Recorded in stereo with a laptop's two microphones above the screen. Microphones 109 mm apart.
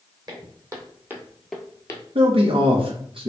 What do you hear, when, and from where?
0.3 s footsteps: 35° right (ahead or behind), 2.5 m; by 2.0 s 35° left (ahead or behind), 1.1 m
2.1 s a man speaking: 55° right (ahead or behind), 0.9 m